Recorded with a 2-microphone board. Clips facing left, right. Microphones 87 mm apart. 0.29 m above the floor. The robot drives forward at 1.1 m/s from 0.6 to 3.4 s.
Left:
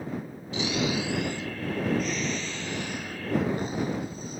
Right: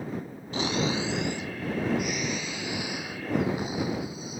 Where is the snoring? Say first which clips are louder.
Even; 45° right (ahead or behind); by 4.4 s 5° right (ahead or behind).